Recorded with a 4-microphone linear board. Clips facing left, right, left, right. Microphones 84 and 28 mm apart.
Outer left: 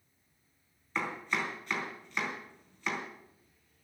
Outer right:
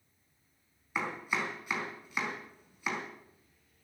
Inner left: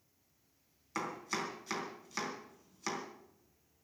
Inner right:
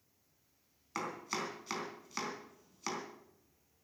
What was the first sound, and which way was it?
Chopping, 10° right (ahead or behind).